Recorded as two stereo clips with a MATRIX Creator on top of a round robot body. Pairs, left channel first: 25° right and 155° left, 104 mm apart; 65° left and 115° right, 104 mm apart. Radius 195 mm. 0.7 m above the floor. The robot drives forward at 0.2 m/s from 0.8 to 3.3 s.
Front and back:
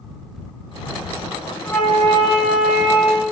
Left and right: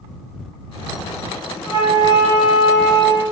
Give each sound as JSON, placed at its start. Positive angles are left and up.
{"t": 1.6, "sound": "a flute", "azimuth_deg": -90, "distance_m": 1.4}